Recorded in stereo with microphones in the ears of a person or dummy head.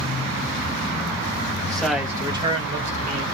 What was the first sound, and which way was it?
A man speaking, 15° left (ahead or behind).